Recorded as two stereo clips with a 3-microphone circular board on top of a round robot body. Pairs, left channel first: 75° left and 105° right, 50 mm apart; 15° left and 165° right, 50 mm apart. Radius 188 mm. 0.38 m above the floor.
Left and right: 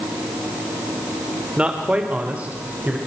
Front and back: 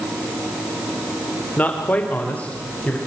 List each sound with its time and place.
1.6 s a man speaking: 40° right, 2 m; by 3.0 s 45° right, 3 m